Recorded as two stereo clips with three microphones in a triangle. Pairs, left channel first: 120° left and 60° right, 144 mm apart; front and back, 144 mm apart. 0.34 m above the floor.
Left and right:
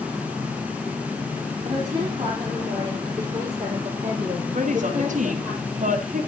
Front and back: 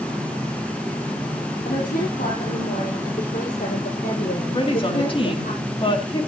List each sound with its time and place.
1.6 s a woman speaking: 5° right, 9 m; by 5.5 s 15° left, 9 m
4.5 s a woman speaking: 45° right, 3 m